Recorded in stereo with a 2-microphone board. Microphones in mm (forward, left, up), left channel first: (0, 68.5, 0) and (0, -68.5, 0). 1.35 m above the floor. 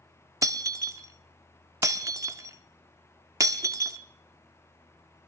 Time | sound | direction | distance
0.4 | breaking glass | 25° right (ahead or behind) | 1.0 m